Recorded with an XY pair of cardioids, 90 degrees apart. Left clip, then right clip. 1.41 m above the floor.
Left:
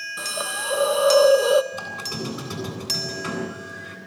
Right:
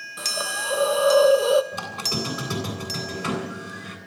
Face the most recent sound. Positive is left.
turn(degrees=-35)